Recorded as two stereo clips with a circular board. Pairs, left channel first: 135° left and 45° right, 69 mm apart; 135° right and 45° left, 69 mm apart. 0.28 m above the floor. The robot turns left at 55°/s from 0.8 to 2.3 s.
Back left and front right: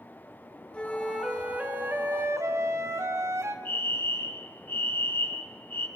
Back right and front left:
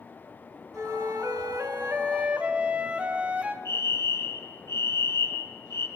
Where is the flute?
65° left, 1.8 m; by 3.5 s 20° right, 1.8 m.